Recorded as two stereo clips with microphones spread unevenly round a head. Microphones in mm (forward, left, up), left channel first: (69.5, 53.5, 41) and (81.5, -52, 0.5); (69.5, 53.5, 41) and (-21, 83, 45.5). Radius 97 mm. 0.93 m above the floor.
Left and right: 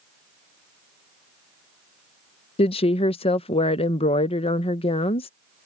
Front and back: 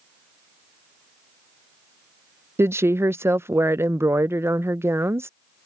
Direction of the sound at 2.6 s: 115° left.